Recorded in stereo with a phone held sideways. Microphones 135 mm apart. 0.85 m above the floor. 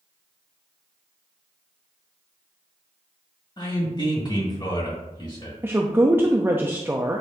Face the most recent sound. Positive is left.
turn(degrees=-15)  # may be behind; listen again after turning